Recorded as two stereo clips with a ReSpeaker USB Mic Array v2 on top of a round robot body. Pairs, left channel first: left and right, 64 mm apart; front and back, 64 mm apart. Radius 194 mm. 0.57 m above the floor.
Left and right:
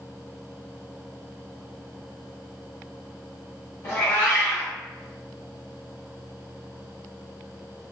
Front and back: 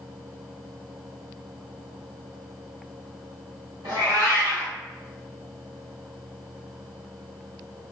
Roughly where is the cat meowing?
Behind left.